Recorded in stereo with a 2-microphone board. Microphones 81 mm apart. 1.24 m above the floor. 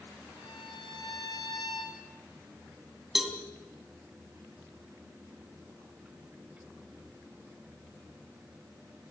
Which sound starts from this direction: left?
A violin, at 0.4 s.